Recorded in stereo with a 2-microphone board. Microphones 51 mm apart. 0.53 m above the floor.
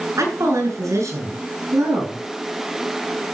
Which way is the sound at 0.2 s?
80° right.